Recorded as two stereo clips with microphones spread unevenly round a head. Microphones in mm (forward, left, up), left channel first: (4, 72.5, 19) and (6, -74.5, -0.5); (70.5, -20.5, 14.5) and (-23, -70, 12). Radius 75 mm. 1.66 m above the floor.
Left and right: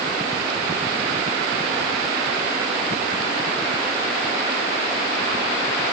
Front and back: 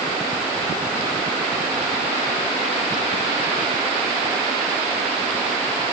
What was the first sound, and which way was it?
Only background noise.